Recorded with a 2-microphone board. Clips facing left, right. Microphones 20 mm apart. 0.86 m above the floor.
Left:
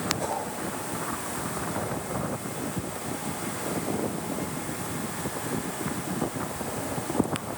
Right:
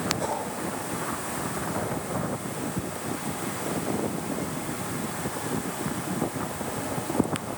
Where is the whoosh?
30° right (ahead or behind), 8 m.